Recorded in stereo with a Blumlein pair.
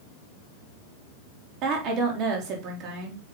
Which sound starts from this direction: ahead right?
A woman speaking, at 1.6 s.